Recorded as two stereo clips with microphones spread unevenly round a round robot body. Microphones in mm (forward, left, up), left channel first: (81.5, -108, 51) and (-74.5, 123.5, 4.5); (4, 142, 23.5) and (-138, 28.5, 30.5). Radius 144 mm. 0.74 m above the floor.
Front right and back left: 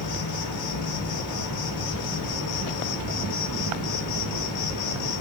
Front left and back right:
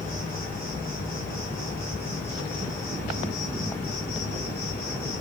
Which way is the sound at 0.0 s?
45° right.